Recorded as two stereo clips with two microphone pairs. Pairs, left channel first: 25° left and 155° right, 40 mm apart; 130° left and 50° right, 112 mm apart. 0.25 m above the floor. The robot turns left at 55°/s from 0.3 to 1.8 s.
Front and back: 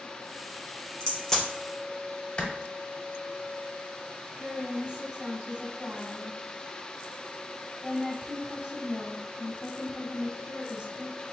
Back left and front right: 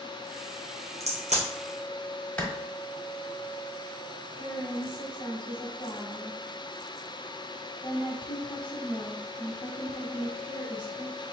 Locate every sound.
1.0 s a crack: 35° right, 2.5 m; by 1.4 s 55° right, 2.5 m
2.4 s a clap: 60° left, 1.1 m
4.4 s a woman speaking: 145° left, 1.5 m